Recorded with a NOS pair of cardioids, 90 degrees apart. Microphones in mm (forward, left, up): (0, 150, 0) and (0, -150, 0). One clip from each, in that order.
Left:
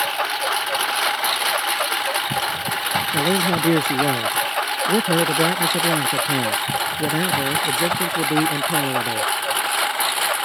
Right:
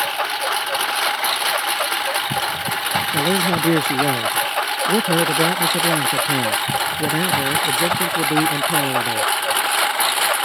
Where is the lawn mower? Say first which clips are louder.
Right 1 dB; 5° right; by 10.5 s 20° right.